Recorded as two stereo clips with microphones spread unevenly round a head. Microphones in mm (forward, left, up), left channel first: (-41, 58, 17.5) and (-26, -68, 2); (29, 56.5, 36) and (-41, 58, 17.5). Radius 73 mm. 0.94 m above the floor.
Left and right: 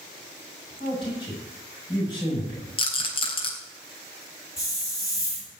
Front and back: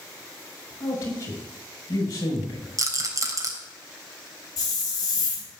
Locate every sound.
0.8 s a man speaking: 35° left, 7 m
2.8 s a rattle: 145° left, 3.5 m
4.6 s a hiss: 30° left, 4.5 m